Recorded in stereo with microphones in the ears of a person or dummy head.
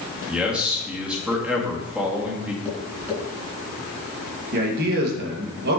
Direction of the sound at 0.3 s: 5° right (ahead or behind).